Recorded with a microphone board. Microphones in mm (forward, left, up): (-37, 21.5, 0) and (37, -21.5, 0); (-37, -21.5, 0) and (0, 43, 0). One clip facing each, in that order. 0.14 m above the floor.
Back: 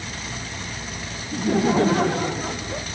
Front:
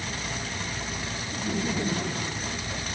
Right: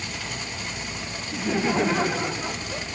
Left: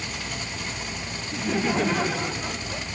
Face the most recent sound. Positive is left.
turn(degrees=160)